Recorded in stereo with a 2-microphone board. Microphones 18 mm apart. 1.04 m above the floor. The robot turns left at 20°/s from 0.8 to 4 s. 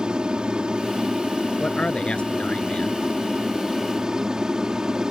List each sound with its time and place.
0.0 s an aircraft: 65° right; by 5.1 s 130° right
1.6 s a man speaking: 70° left (ahead or behind); by 3.0 s 85° left